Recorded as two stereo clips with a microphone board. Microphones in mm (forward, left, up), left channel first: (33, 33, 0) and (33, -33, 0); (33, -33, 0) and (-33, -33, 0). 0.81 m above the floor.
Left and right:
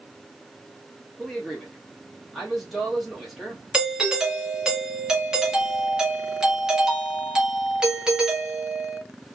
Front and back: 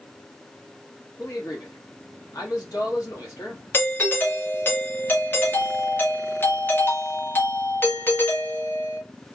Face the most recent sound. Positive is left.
turn(degrees=-20)